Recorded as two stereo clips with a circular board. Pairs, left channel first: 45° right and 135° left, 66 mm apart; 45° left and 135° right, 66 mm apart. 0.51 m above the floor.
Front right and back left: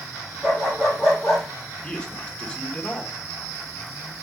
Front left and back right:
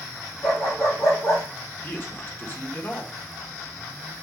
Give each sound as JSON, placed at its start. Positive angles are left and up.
{"t": 0.4, "sound": "a dog barking", "azimuth_deg": 50, "distance_m": 4.5}
{"t": 1.8, "sound": "a man speaking", "azimuth_deg": 20, "distance_m": 1.5}